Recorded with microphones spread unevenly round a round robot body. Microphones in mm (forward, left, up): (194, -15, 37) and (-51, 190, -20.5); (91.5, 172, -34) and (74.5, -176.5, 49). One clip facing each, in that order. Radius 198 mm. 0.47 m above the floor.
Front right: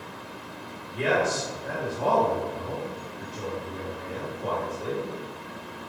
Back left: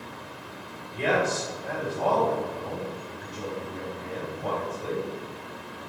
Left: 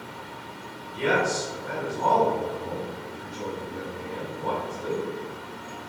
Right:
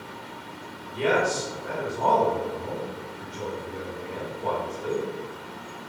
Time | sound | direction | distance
0.9 | a man speaking | 90° right | 1.5 m